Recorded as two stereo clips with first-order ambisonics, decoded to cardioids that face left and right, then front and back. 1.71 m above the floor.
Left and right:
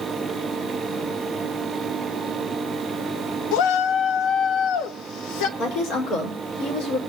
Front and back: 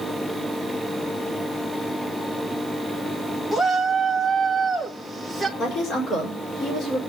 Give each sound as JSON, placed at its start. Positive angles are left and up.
{"t": 3.5, "sound": "a shout", "azimuth_deg": 85, "distance_m": 1.7}
{"t": 5.6, "sound": "a woman speaking", "azimuth_deg": 55, "distance_m": 5.0}